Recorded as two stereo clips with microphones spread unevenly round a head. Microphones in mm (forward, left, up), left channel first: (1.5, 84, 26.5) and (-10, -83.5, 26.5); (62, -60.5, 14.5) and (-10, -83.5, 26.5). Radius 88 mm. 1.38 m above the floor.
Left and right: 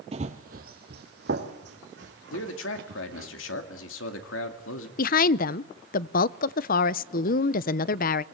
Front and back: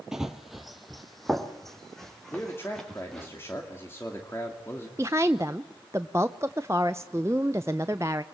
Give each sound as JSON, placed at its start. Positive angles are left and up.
{"t": 0.1, "sound": "running footsteps", "azimuth_deg": -100, "distance_m": 1.5}
{"t": 2.3, "sound": "a man speaking", "azimuth_deg": 95, "distance_m": 2.5}
{"t": 5.0, "sound": "a woman speaking", "azimuth_deg": 125, "distance_m": 0.5}